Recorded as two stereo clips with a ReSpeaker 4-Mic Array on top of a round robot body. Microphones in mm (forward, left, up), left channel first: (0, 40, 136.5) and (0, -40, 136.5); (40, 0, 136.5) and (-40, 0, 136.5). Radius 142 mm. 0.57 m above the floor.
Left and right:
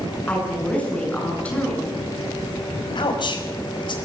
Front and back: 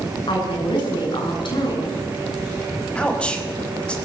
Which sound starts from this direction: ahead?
A woman speaking, at 0.3 s.